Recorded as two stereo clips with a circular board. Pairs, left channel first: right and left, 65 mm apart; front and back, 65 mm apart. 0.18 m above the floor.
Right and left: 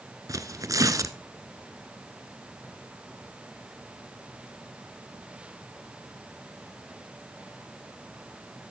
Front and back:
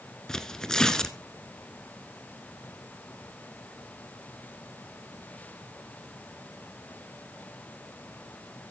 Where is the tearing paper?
80° left, 0.9 m.